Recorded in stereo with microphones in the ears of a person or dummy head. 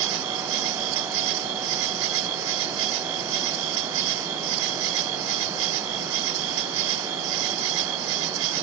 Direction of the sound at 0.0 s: 70° right (ahead or behind).